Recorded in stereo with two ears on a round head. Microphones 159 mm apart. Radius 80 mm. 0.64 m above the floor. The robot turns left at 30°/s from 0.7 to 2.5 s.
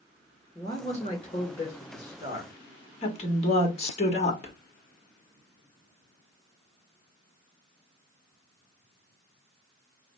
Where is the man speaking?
160° left, 1.8 m; by 2.5 s 110° left, 1.8 m.